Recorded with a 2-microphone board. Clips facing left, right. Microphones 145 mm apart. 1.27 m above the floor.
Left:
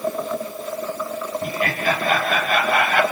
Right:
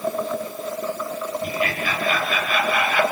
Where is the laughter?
45° left (ahead or behind), 5 m; by 3.0 s 55° left (ahead or behind), 4.5 m.